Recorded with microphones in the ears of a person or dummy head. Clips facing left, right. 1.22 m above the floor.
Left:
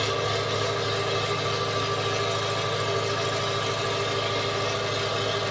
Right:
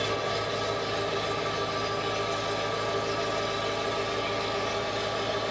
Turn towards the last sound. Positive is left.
turn(degrees=75)  # may be behind; listen again after turning